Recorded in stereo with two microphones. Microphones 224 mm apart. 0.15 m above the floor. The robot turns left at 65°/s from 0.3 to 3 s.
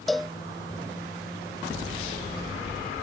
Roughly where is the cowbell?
Centre.